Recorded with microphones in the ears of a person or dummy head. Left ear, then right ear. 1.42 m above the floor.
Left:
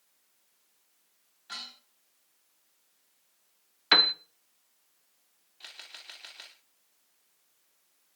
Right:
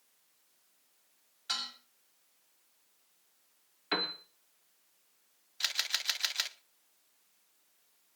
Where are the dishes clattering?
50° right (ahead or behind), 6.5 m.